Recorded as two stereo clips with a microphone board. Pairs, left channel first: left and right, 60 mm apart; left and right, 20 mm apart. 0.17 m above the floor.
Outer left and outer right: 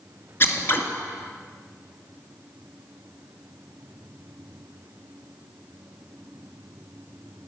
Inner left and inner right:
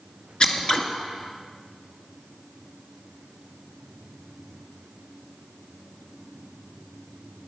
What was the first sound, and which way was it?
Scissors, 45° left (ahead or behind).